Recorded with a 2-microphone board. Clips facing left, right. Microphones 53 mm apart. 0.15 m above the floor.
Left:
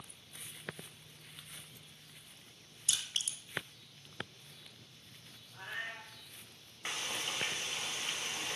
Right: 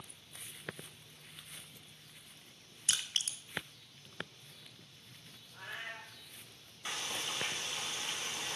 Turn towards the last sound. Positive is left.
turn(degrees=40)  # may be behind; listen again after turning